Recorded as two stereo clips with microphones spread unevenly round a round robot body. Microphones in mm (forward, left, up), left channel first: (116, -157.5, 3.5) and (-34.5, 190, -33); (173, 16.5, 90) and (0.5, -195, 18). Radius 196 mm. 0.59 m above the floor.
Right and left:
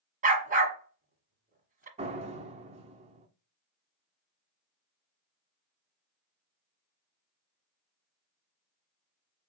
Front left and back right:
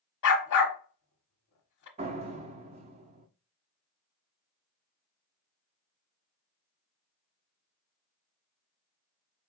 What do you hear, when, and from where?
0.2 s a dog barking: 40° left, 1.3 m
2.0 s a door slam: straight behind, 0.6 m